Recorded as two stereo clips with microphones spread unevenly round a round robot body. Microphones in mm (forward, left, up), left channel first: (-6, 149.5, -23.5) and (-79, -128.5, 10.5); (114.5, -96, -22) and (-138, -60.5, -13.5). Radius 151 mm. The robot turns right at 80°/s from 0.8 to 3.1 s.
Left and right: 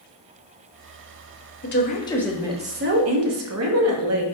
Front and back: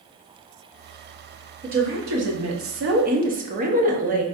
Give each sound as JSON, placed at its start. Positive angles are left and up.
{"t": 1.6, "sound": "a woman speaking", "azimuth_deg": 110, "distance_m": 0.9}